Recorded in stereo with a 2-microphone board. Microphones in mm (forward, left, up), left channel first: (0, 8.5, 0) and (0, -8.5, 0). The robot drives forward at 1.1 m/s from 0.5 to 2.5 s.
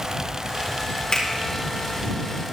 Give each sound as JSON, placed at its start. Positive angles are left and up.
{"t": 1.1, "sound": "a finger snap", "side_deg": 45, "distance_m": 4.0}